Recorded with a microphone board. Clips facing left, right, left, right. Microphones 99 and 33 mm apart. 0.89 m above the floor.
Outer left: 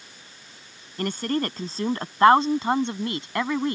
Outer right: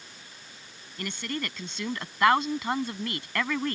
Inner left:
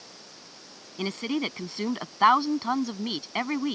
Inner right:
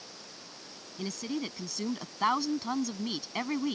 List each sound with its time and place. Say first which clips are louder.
1.0 s a woman speaking: outer left 8 dB, inner left 6 dB; 45° left (ahead or behind); by 3.8 s 20° left (ahead or behind)